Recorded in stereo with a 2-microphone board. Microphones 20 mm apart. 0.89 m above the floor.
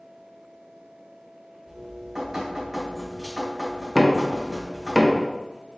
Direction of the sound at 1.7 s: 20° right (ahead or behind).